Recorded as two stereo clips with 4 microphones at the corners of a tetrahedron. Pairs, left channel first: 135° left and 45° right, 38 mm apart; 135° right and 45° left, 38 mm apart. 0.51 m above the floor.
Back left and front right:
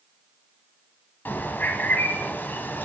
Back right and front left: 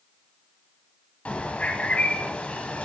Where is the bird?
170° left, 1.2 m.